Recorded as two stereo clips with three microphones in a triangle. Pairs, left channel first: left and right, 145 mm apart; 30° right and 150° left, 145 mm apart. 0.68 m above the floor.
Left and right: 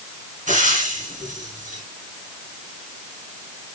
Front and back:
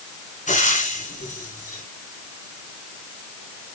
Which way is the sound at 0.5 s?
60° right.